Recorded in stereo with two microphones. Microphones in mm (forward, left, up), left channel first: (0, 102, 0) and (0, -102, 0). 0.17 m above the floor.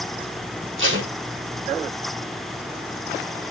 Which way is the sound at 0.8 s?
70° right (ahead or behind).